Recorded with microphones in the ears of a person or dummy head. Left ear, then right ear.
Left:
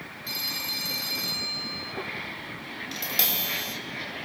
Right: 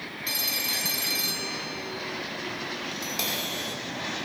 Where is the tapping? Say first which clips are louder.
Left 4 dB; 5° left (ahead or behind), 5.5 m.